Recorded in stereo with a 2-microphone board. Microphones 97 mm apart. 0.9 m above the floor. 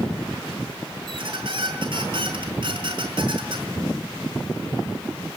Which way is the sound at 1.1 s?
60° right (ahead or behind).